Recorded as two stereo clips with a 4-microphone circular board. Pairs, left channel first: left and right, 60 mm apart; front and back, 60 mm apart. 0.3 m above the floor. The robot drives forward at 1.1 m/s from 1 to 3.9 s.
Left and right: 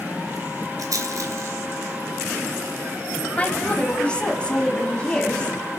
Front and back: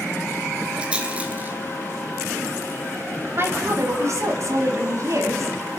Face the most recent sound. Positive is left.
turn(degrees=160)